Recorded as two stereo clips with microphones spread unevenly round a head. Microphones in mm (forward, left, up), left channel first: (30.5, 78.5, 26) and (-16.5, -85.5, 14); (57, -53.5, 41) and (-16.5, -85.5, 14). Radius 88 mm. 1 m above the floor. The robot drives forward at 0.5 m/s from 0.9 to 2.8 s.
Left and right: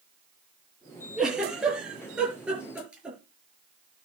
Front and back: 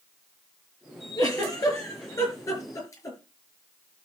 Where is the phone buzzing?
I don't hear a phone buzzing.